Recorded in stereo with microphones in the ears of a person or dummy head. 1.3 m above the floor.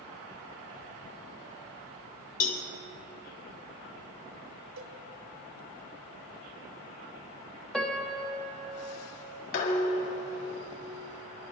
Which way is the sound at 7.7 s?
Centre (ahead or behind).